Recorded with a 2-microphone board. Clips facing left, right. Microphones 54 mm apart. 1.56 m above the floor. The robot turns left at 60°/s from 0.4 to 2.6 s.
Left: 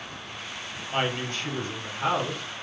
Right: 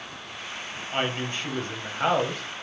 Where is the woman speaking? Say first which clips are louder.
Even; 5° left, 1.1 m; by 2.4 s 85° right, 1.1 m.